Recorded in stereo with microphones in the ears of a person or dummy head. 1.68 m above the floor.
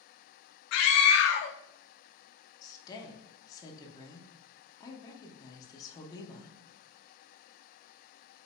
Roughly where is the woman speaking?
Left.